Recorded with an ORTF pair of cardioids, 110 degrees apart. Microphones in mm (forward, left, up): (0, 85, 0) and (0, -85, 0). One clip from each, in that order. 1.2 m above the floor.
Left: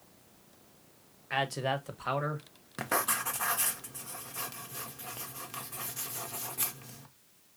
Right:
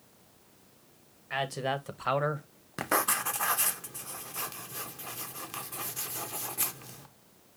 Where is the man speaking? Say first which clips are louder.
Even; 10° left, 1.0 m; by 2.5 s 35° right, 0.9 m.